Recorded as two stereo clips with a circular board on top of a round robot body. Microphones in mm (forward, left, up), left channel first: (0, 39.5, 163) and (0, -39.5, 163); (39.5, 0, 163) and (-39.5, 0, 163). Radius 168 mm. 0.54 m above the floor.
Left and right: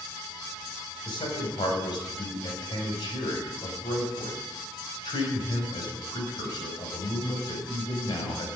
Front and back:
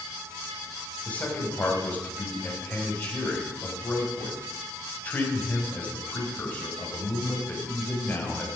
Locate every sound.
1.1 s a man speaking: 70° left, 5 m